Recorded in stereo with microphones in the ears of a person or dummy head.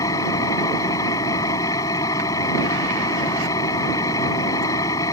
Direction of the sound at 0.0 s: 20° left (ahead or behind).